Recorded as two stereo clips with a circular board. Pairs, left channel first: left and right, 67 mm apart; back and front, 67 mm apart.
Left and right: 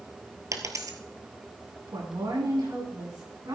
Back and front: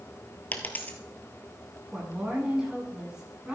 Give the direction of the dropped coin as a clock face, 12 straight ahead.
4 o'clock.